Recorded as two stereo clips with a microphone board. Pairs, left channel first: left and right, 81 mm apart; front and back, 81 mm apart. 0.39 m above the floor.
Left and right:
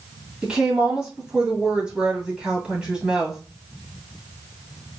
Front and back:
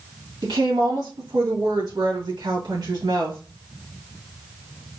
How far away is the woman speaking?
About 2.5 m.